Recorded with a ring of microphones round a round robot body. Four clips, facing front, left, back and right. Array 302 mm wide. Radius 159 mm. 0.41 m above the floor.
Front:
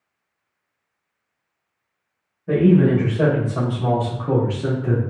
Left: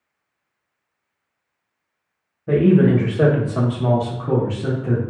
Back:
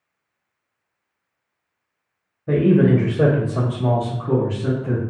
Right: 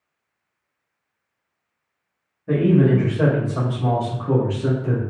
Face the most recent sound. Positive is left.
turn(degrees=10)